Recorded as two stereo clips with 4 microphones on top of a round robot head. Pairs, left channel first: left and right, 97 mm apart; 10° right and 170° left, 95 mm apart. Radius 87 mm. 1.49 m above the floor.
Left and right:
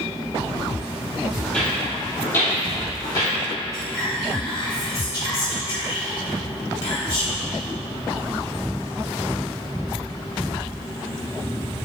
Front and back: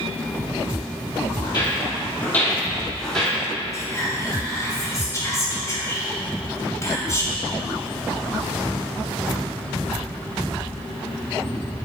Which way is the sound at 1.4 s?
5° left.